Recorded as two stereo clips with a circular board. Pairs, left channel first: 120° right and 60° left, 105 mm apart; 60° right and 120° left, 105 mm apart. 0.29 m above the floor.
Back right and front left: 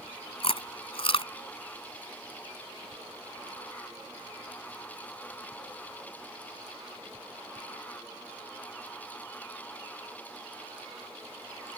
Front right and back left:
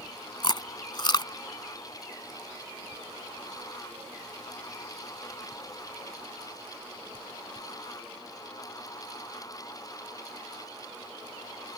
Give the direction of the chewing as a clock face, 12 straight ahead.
3 o'clock.